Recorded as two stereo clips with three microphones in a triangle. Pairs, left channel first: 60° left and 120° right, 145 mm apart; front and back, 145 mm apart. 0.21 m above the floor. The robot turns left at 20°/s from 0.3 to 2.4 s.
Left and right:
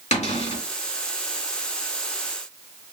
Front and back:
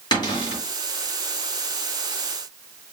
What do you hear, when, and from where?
0.1 s a cupboard door: 55° left, 2.5 m; by 0.6 s 50° left, 2.5 m